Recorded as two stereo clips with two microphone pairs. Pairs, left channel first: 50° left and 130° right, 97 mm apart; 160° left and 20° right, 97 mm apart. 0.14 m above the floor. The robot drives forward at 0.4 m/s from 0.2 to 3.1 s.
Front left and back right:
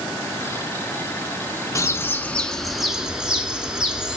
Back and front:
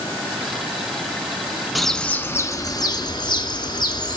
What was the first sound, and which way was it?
A bird, 65° left.